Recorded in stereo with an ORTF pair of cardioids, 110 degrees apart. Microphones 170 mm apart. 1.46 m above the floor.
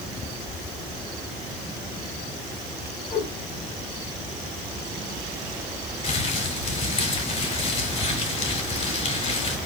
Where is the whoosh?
30° left, 2.5 m.